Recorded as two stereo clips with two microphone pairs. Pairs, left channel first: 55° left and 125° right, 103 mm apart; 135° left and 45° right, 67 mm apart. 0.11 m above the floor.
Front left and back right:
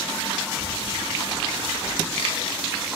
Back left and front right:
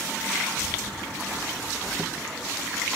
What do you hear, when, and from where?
0.5 s a child speaking: 140° left, 8 m; by 3.0 s 135° left, 4.5 m